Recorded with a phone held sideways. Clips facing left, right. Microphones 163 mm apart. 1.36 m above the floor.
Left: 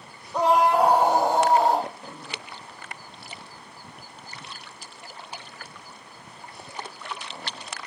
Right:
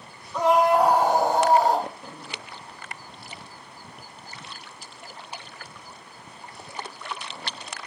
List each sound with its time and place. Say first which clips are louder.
0.3 s a scream: right 1 dB; 35° left (ahead or behind), 1.0 m; by 1.9 s 20° left (ahead or behind), 3 m